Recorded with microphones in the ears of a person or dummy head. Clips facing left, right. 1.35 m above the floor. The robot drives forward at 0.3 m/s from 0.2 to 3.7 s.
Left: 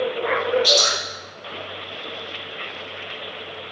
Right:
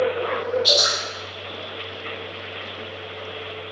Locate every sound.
0.6 s dripping: 40° left (ahead or behind), 1.9 m